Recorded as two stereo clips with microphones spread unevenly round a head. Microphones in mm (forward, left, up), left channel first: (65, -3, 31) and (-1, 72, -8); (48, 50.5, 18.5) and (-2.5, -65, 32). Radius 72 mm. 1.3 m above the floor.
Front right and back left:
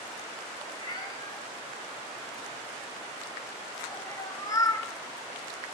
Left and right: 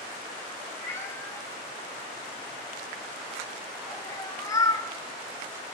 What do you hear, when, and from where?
0.7 s a cat meowing: 5° right, 5 m; by 4.9 s straight ahead, 1.7 m